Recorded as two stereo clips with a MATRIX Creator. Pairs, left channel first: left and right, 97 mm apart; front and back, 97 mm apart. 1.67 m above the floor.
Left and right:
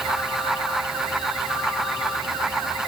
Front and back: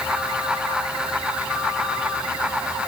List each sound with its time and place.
Only background noise.